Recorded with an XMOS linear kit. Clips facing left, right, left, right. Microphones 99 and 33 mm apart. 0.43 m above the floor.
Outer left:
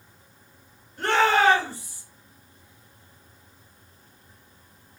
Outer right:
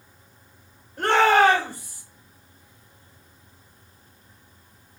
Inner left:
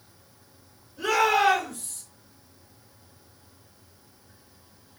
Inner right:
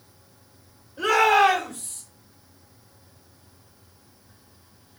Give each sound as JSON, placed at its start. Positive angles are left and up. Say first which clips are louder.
{"t": 1.0, "sound": "a shout", "louder": "outer right 3 dB, inner right 4 dB", "side_deg": -50, "distance_m": 1.8}